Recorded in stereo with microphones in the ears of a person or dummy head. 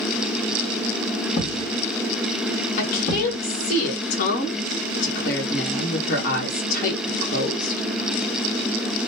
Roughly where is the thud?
Left.